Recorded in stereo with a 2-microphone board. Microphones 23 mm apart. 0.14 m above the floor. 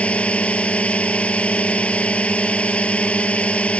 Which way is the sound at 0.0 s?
65° left (ahead or behind).